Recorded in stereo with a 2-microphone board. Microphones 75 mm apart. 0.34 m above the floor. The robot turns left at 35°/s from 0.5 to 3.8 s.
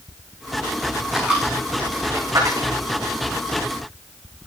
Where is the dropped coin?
5° right (ahead or behind), 7.5 m; by 2.7 s 60° right (ahead or behind), 7.5 m.